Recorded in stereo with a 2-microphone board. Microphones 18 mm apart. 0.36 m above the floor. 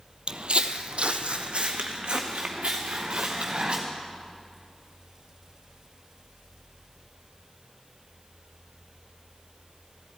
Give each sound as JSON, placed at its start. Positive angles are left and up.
{"t": 0.3, "sound": "footsteps", "side_deg": -55, "distance_m": 0.6}